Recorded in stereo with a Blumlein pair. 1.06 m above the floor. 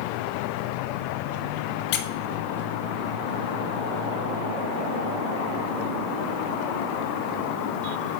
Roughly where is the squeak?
Ahead left.